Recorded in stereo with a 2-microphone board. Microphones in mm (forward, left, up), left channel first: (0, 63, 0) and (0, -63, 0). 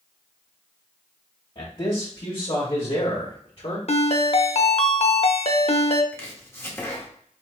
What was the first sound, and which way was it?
A man speaking, 45° left (ahead or behind).